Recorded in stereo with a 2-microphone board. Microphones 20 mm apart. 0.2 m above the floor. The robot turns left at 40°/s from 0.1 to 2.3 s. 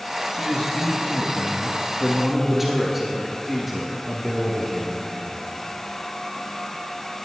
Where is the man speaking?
65° left, 3.5 m; by 5.3 s 10° right, 3.5 m.